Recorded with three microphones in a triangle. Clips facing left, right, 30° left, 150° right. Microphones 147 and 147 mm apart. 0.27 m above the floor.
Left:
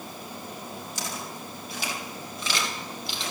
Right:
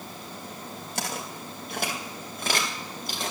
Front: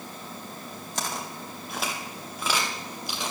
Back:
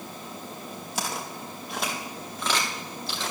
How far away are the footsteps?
About 3.5 m.